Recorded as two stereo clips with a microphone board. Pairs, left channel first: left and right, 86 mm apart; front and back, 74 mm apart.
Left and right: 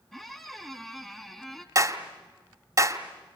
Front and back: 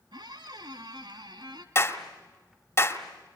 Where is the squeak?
Straight behind, 1.8 m.